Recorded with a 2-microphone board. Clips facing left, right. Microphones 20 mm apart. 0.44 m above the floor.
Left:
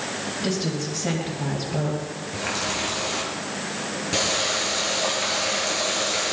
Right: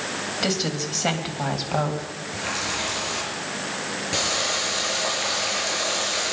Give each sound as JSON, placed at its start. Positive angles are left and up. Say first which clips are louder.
{"t": 0.4, "sound": "a woman speaking", "louder": "right 2 dB", "side_deg": -65, "distance_m": 3.0}
{"t": 2.3, "sound": "a running tap", "louder": "even", "side_deg": 0, "distance_m": 5.0}